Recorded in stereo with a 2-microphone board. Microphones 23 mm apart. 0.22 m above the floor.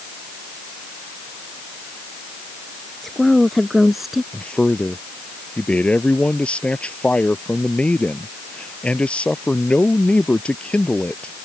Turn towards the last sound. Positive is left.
turn(degrees=70)  # may be behind; listen again after turning